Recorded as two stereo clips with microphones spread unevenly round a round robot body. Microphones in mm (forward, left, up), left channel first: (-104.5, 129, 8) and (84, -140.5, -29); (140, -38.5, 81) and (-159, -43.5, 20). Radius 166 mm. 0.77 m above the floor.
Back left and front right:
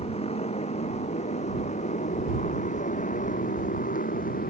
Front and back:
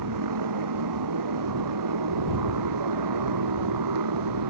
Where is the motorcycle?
165° right; by 4.5 s 170° right.